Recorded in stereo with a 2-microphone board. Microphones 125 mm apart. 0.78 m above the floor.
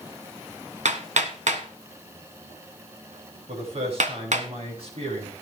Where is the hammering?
75° right (ahead or behind), 1.6 m.